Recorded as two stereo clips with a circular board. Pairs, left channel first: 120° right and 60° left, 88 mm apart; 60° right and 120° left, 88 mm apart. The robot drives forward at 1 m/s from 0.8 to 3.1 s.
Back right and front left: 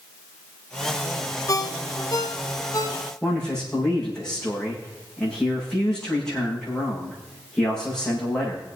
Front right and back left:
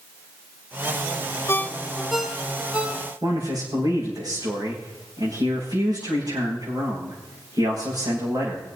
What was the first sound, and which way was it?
A ringtone, 100° right.